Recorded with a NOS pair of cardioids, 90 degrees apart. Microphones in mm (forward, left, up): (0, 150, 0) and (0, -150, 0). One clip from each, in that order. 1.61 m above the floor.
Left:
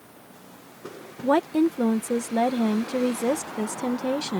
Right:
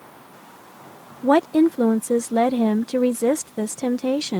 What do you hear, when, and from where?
1.2 s a woman speaking: 30° right